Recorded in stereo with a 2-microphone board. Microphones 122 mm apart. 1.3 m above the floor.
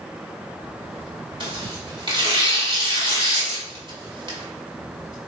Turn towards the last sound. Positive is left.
turn(degrees=-45)  # may be behind; listen again after turning